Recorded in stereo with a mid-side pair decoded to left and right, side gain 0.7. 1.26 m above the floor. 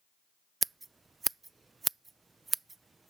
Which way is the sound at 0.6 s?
20° right.